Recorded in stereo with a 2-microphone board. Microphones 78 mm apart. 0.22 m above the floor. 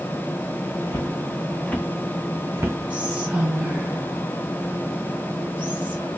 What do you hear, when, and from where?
0.9 s footsteps: 45° left (ahead or behind), 0.9 m; by 2.8 s 40° right (ahead or behind), 0.7 m
2.9 s whispering: 20° right (ahead or behind), 1.2 m